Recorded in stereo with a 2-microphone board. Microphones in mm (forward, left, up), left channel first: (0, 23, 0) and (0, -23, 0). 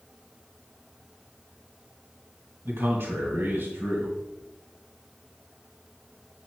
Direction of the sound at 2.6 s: 60° right (ahead or behind).